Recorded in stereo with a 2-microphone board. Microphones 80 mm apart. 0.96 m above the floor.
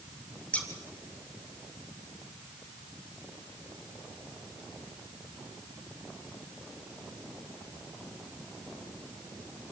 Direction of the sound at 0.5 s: 15° left (ahead or behind).